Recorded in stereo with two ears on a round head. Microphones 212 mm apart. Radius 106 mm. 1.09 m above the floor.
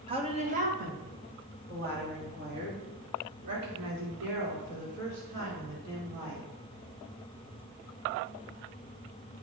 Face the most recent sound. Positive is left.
turn(degrees=-55)  # may be behind; listen again after turning